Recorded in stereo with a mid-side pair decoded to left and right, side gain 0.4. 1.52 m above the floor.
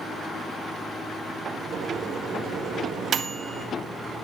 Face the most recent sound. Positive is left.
turn(degrees=-60)